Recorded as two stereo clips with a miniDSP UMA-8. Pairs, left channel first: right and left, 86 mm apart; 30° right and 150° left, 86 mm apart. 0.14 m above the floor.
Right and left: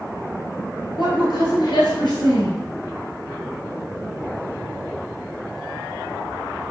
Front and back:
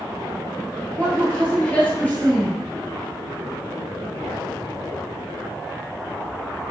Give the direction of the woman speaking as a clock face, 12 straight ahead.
3 o'clock.